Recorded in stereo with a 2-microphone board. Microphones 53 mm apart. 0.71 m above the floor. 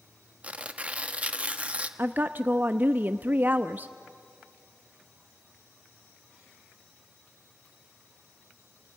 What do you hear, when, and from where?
0.4 s tearing paper: 25° right (ahead or behind), 0.9 m
2.0 s a woman speaking: 35° right (ahead or behind), 0.5 m